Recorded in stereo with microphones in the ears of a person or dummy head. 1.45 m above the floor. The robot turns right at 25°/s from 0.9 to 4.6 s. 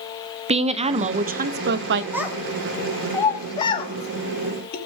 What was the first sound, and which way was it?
A woman speaking, 30° right (ahead or behind).